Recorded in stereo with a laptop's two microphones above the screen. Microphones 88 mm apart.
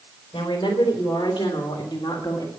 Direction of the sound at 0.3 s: 80° left.